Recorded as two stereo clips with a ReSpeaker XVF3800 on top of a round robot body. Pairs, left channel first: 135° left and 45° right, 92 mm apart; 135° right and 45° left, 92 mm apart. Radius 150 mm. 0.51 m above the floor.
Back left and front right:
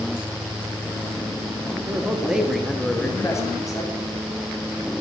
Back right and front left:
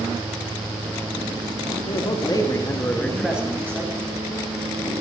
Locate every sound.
1.9 s a man speaking: 115° right, 1.8 m; by 4.1 s 95° left, 1.8 m